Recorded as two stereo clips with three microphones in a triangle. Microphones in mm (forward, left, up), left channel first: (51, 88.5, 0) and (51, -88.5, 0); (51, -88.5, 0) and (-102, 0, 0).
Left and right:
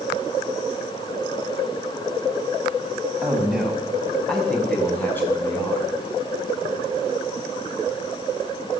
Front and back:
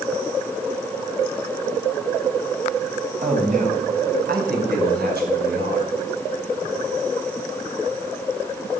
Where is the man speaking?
170° right, 5 m; by 5.9 s 165° left, 6.5 m.